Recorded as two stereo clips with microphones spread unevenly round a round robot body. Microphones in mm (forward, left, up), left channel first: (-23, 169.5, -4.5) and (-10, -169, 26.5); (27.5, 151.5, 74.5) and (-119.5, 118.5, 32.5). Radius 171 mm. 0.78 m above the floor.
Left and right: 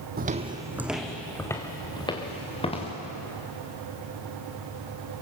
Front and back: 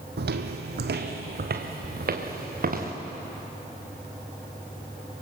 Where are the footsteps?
140° right, 1.3 m; by 2.9 s 165° left, 4.5 m.